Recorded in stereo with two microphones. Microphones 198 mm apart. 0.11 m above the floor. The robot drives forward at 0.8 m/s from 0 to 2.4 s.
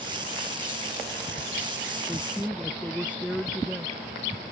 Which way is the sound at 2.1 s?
5° right (ahead or behind).